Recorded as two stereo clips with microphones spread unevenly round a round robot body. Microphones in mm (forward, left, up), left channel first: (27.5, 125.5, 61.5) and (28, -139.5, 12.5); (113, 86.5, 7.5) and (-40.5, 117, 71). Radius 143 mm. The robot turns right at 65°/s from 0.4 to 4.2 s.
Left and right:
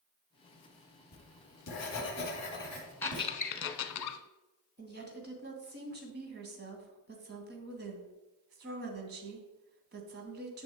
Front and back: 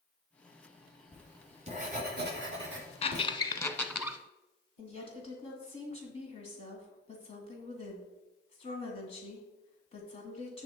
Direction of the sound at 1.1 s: 75° left.